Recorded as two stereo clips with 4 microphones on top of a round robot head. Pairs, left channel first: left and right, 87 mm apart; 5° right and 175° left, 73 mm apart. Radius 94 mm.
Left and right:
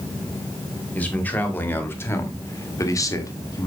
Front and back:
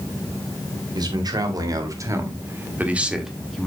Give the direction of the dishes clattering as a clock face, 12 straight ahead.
No dishes clattering in this recording.